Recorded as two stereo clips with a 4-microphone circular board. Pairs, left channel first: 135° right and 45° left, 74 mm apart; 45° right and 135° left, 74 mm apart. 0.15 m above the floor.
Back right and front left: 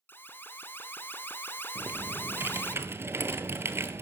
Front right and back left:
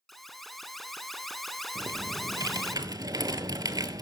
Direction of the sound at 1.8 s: 100° left.